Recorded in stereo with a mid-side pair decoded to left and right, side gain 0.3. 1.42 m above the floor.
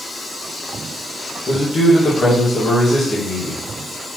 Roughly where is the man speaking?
Ahead left.